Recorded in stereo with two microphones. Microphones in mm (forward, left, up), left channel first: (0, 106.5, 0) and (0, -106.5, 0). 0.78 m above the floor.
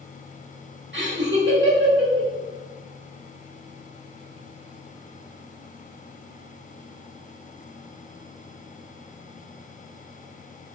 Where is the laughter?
60° right (ahead or behind), 2.0 m.